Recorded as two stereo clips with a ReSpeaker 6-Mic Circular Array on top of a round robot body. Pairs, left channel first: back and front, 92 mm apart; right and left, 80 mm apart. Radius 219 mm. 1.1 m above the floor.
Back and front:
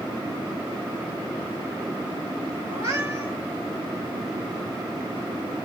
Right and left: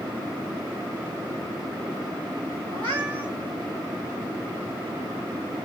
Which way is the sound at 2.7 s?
55° left.